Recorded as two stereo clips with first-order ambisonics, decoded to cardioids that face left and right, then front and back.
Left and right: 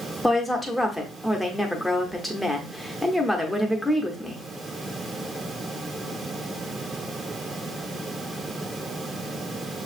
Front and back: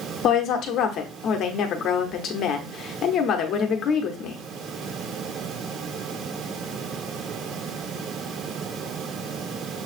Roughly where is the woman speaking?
Ahead.